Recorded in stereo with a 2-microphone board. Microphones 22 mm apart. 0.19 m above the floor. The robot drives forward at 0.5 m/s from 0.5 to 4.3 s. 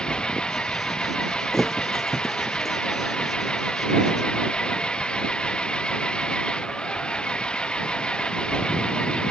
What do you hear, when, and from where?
0.0 s an engine running: 50° left (ahead or behind); by 9.3 s 55° left (ahead or behind)
1.5 s a thud: 5° left (ahead or behind)